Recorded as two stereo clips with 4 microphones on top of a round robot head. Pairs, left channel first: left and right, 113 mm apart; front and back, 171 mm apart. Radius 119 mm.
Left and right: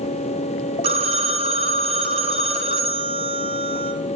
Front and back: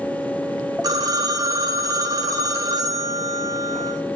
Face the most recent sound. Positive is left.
turn(degrees=-110)